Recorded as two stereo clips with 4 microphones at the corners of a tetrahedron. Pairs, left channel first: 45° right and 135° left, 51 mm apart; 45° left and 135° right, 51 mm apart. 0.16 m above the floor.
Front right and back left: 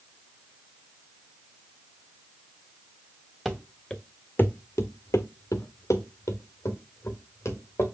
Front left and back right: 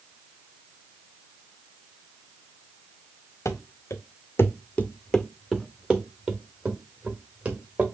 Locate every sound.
3.5 s running footsteps: 50° left, 0.8 m; by 7.8 s 75° right, 2 m